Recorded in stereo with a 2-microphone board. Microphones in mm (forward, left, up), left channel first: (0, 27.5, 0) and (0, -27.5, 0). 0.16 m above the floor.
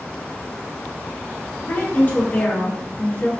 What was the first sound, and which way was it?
A woman speaking, 30° left (ahead or behind).